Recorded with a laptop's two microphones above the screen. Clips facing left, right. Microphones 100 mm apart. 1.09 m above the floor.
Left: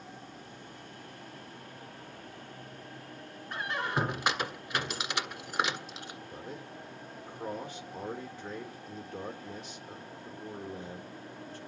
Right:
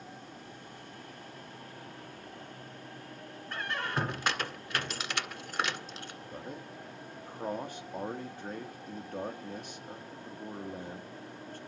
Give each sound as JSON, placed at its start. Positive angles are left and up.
{"t": 3.5, "sound": "a squeak", "side_deg": 10, "distance_m": 1.7}
{"t": 6.3, "sound": "a man speaking", "side_deg": -55, "distance_m": 2.5}